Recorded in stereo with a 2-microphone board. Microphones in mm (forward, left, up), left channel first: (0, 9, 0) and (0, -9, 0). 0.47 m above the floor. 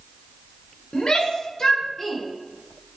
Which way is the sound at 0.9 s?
50° left (ahead or behind).